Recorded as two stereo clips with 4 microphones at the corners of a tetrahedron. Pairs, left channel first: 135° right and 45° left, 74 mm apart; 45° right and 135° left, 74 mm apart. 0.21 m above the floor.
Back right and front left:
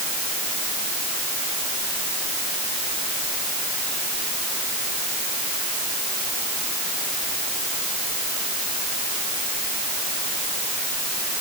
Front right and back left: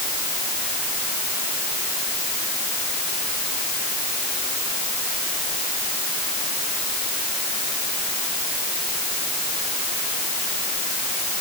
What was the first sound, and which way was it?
Only background noise.